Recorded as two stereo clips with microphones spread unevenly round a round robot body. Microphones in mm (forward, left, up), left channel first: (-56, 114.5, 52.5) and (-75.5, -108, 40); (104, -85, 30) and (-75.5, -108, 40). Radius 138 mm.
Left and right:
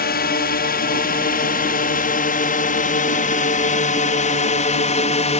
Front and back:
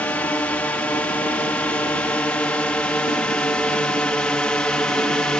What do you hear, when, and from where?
0.0 s a drone: 85° left